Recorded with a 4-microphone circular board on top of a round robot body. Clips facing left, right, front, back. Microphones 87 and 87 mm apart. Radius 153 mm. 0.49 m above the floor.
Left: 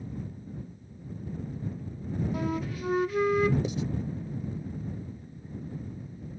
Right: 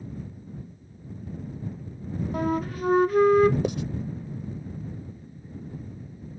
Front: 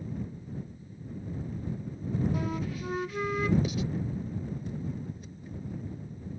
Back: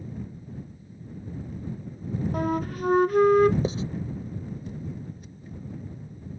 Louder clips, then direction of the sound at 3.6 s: Right 4 dB, back 4 dB; 120° right.